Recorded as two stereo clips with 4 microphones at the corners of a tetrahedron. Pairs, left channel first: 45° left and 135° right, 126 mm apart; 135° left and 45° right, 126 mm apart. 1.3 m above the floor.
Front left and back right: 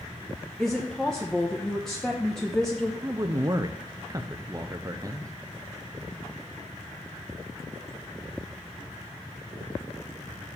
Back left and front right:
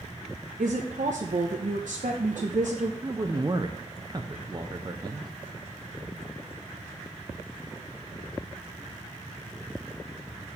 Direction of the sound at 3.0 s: 80° right.